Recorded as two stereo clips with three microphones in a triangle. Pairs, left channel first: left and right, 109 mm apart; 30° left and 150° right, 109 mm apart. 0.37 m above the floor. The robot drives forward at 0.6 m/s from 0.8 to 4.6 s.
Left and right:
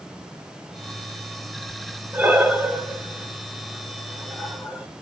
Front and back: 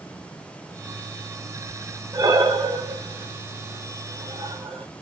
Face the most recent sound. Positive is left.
turn(degrees=-170)